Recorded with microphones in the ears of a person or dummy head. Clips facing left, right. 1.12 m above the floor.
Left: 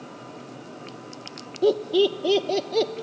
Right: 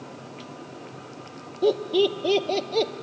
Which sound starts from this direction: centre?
Laughter, at 1.6 s.